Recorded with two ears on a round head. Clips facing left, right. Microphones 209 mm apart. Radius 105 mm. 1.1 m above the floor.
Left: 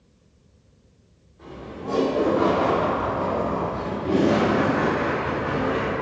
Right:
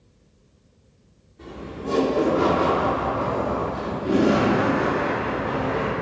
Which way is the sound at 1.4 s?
55° right (ahead or behind).